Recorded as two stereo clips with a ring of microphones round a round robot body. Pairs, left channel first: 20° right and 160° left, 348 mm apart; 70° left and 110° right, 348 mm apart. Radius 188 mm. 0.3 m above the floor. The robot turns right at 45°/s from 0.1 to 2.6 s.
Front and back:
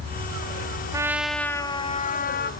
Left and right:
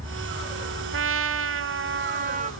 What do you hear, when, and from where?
0.9 s a trumpet: 130° right, 1.2 m; by 2.5 s 55° right, 1.2 m